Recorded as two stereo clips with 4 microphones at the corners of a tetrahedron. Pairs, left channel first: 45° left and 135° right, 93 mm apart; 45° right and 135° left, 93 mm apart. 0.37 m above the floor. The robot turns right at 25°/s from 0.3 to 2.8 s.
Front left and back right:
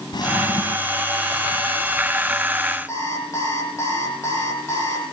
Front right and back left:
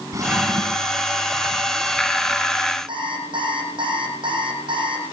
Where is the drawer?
85° left, 1.5 m; by 1.0 s 100° left, 1.5 m.